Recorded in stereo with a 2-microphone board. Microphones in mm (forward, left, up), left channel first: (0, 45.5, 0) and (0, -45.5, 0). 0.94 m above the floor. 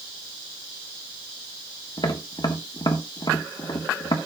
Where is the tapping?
55° left (ahead or behind), 1.3 m.